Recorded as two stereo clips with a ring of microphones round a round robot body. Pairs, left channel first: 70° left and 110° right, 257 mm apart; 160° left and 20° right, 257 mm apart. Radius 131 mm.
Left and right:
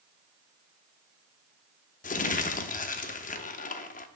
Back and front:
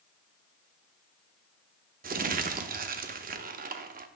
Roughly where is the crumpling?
Ahead.